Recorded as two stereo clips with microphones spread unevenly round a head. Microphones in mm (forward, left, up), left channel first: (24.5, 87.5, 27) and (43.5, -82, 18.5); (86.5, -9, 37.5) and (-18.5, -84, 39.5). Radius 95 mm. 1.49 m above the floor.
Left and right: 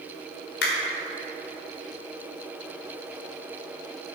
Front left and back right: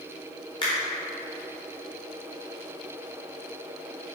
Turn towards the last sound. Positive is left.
turn(degrees=100)